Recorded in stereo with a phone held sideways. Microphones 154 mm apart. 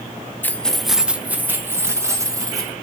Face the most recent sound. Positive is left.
turn(degrees=-20)  # may be behind; listen again after turning